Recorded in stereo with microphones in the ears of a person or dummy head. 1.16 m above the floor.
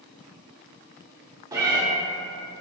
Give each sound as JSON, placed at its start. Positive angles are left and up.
{"t": 1.5, "sound": "a cat meowing", "side_deg": -10, "distance_m": 0.6}